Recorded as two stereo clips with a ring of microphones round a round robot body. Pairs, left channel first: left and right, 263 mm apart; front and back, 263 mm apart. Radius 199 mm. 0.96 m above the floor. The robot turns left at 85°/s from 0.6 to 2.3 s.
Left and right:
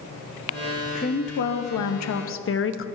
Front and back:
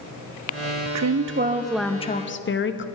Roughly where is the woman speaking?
Behind.